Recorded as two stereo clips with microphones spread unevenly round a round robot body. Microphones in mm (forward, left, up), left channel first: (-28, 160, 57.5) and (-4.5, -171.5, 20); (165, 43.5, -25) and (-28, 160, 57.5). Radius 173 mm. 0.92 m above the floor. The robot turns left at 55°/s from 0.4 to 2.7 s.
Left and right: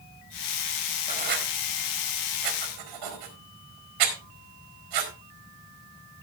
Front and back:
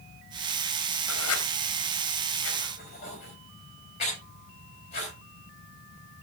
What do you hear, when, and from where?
1.1 s writing: 15° right, 4 m; by 5.1 s 100° right, 4 m